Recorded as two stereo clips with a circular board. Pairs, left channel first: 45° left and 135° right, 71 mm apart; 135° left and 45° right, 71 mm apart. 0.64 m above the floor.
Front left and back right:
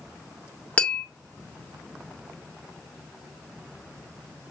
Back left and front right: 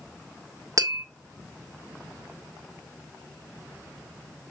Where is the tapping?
25° right, 1.8 m.